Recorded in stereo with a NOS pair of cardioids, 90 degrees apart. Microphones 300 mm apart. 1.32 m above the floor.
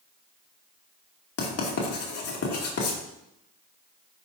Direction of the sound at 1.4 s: 50° left.